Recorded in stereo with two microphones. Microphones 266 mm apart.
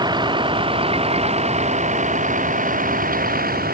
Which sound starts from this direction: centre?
A vehicle, at 0.0 s.